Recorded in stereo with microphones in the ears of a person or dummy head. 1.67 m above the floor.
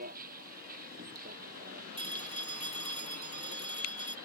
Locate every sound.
0.0 s a vehicle: 50° right (ahead or behind)
2.0 s a phone ringing: 25° right (ahead or behind)